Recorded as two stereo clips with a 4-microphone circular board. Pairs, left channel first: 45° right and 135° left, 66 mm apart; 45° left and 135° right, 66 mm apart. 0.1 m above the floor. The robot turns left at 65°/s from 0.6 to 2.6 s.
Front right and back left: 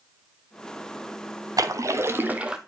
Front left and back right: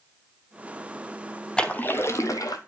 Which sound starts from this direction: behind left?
A splash, at 1.6 s.